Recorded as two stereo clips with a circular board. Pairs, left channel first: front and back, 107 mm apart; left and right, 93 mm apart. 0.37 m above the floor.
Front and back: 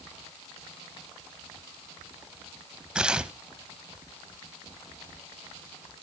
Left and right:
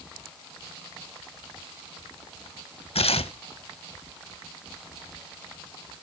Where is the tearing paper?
95° left, 0.6 m.